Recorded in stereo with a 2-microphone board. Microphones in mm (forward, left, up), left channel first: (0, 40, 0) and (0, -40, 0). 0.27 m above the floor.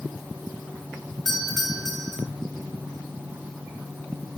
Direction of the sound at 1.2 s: Centre (ahead or behind).